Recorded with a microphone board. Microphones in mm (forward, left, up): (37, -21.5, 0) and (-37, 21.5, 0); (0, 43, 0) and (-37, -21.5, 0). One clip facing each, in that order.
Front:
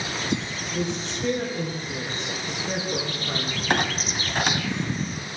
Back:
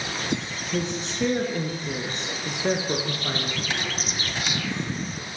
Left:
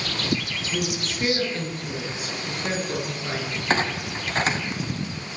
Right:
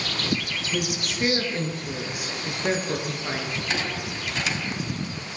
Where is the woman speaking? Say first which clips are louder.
Back 1 dB, left 1 dB; 165° left, 8.5 m.